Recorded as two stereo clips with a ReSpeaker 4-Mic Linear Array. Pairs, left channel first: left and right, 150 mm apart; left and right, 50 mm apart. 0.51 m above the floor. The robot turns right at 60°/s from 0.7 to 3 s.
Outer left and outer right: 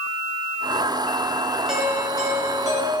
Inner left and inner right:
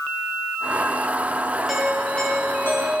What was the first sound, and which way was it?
A doorbell, 5° right.